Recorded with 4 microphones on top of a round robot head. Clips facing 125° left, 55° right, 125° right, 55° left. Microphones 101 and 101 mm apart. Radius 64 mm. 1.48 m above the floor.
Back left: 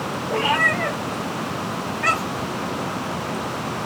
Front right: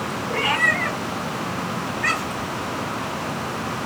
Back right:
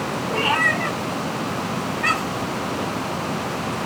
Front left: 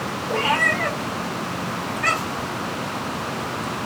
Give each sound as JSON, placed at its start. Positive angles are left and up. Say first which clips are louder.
{"t": 0.3, "sound": "a cat meowing", "louder": "back left 2 dB, front left 1 dB", "azimuth_deg": 95, "distance_m": 1.8}